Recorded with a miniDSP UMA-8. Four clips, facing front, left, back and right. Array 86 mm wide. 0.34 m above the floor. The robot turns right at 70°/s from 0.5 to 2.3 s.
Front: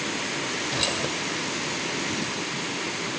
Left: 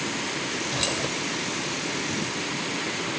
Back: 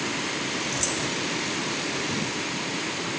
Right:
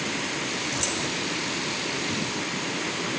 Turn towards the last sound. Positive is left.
turn(degrees=130)